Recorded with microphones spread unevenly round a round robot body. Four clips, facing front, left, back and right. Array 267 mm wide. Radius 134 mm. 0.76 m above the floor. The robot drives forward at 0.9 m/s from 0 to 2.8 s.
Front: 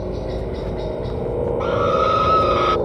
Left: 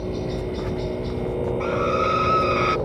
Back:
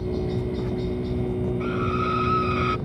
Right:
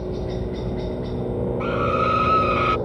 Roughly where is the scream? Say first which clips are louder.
Right 1 dB, front 11 dB; ahead.